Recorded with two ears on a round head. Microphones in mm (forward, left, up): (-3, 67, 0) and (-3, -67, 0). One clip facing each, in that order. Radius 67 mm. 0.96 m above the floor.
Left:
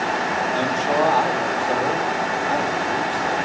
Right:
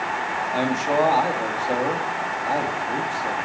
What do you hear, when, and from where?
0.5 s a man speaking: 10° right (ahead or behind), 1.9 m